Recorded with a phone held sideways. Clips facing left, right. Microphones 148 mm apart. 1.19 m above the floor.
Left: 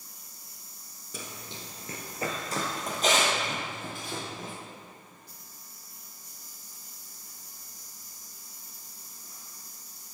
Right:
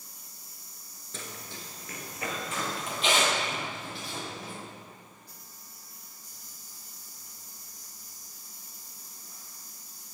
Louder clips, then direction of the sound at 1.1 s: Left 1 dB; 10° left (ahead or behind).